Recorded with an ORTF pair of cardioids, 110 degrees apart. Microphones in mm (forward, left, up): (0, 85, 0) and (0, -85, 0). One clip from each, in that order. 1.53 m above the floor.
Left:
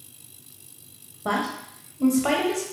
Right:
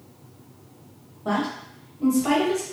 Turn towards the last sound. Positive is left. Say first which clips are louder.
# even
turn(degrees=30)